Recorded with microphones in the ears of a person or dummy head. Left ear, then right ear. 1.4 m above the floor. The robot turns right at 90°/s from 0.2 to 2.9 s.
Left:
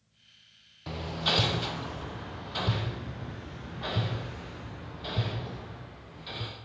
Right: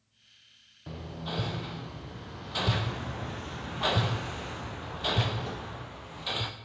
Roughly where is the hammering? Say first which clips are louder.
Left 10 dB; left.